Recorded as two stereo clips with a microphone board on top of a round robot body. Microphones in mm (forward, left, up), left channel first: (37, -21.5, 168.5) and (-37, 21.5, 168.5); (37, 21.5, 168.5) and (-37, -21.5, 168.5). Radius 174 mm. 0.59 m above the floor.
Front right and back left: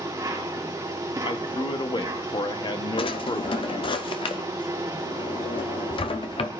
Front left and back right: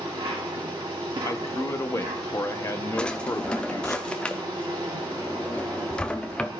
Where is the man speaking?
20° right, 1.0 m.